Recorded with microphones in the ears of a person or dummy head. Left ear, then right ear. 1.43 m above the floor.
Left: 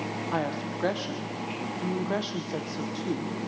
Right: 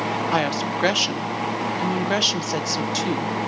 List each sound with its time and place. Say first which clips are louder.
0.3 s a woman speaking: right 6 dB; 70° right (ahead or behind), 1.2 m